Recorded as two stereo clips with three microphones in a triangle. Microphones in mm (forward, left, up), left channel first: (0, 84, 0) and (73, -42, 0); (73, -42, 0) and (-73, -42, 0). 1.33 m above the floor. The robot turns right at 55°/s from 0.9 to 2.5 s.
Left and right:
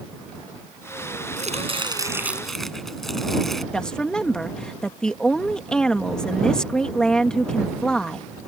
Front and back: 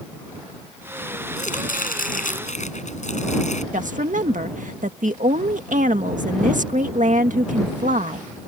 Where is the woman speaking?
155° right.